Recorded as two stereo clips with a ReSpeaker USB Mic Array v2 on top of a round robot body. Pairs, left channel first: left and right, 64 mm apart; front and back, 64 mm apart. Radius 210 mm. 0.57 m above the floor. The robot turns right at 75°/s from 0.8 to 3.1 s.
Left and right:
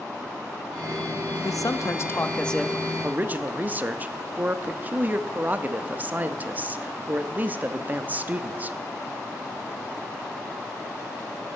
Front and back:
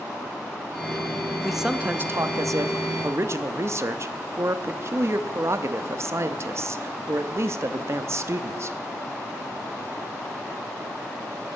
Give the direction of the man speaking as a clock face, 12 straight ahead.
9 o'clock.